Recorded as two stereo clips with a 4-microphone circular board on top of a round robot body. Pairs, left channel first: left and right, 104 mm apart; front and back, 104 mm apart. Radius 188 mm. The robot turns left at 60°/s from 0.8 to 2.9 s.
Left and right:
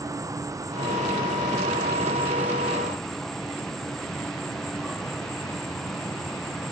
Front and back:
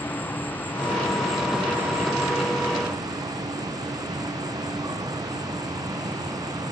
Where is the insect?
60° right, 1.1 m; by 6.7 s 175° left, 1.1 m.